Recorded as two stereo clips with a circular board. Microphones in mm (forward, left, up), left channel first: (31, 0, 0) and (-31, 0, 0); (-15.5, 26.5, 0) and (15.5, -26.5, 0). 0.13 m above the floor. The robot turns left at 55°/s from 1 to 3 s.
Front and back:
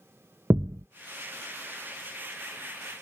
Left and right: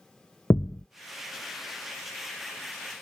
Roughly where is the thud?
Behind left.